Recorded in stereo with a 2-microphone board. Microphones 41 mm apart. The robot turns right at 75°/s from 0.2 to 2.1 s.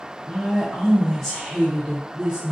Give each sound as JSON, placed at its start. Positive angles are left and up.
{"t": 0.3, "sound": "a woman speaking", "side_deg": 20, "distance_m": 0.6}